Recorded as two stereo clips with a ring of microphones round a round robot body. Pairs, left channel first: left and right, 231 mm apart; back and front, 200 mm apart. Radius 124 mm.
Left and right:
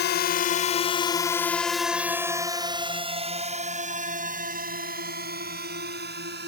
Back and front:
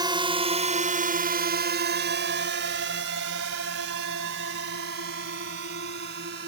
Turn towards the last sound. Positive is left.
turn(degrees=-45)